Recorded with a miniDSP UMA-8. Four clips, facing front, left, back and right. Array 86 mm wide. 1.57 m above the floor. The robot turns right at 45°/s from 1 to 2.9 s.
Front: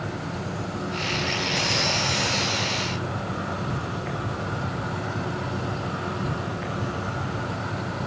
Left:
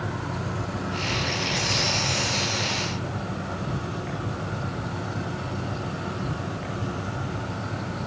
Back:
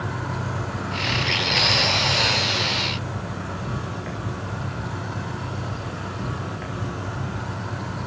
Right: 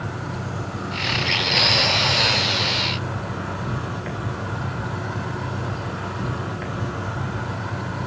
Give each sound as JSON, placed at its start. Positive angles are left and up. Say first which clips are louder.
{"t": 0.0, "sound": "an insect", "louder": "right 1 dB, back 2 dB", "azimuth_deg": 170, "distance_m": 7.5}